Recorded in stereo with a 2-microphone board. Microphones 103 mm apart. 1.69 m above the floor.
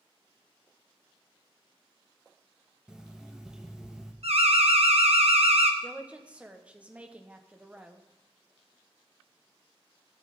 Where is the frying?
No frying in this recording.